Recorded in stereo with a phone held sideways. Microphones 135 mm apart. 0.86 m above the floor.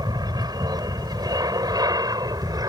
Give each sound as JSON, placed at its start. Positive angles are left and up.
{"t": 0.0, "sound": "an aircraft", "side_deg": -30}